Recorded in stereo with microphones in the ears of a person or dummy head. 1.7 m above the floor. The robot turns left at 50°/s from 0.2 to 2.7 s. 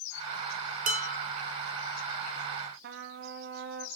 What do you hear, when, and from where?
0.9 s dishes clattering: 45° right (ahead or behind), 1.6 m; by 1.2 s 25° right (ahead or behind), 1.6 m
2.8 s a trumpet: 55° right (ahead or behind), 1.3 m